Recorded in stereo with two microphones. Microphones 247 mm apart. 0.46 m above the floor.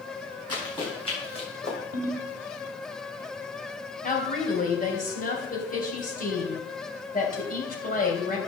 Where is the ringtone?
80° right, 1.4 m.